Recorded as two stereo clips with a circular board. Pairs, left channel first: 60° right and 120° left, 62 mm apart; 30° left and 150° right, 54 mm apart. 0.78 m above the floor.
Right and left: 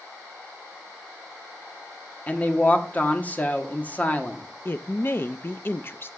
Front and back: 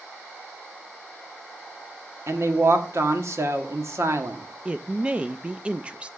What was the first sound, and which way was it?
A woman speaking, 125° right.